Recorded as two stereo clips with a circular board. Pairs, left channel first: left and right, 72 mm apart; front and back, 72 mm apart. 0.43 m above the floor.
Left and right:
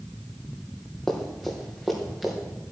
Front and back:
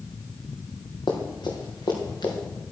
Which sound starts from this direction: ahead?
Running footsteps, at 1.1 s.